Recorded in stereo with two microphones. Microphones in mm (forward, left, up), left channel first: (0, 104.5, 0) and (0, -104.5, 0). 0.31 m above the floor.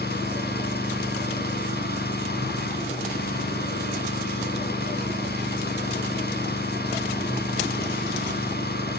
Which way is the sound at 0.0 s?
50° left (ahead or behind).